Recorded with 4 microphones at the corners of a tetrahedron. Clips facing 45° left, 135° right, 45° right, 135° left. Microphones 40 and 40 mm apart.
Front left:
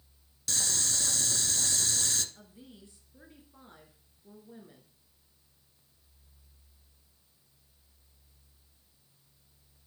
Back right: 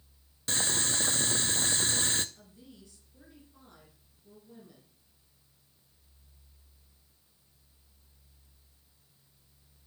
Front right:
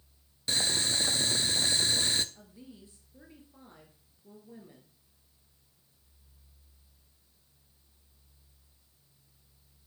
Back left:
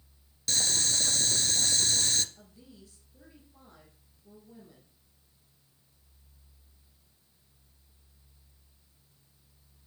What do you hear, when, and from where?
0.5 s boiling: 105° right, 0.5 m
2.4 s a woman speaking: 5° left, 2 m